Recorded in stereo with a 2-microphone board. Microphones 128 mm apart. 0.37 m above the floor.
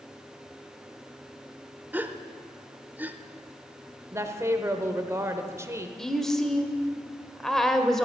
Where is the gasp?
15° right (ahead or behind), 0.7 m.